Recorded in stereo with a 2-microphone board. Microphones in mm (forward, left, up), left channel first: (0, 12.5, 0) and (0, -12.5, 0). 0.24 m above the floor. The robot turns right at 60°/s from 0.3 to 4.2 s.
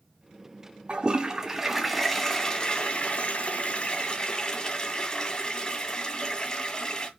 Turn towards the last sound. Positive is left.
turn(degrees=140)